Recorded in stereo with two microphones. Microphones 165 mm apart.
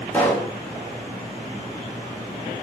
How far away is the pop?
About 9.5 m.